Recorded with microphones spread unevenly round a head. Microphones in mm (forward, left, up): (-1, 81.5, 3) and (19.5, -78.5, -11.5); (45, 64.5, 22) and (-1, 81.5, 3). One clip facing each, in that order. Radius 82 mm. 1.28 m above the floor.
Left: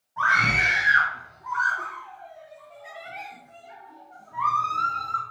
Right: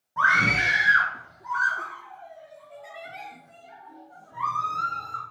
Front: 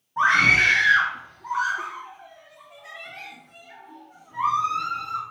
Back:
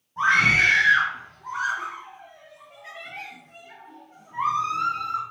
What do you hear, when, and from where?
0.2 s a scream: 95° right, 0.9 m; by 5.2 s 150° right, 4 m